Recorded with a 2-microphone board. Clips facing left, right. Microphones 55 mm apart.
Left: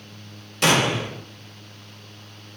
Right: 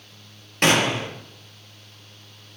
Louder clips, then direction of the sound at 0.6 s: Even; 45° right (ahead or behind).